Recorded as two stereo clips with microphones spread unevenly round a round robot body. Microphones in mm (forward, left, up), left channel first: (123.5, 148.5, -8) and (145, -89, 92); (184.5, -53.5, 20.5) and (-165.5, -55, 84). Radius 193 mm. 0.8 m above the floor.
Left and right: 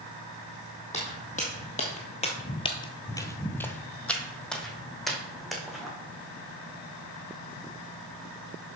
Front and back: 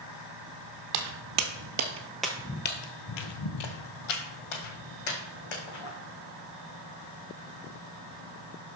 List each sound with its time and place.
0.9 s footsteps: straight behind, 1.3 m; by 5.9 s 5° right, 3 m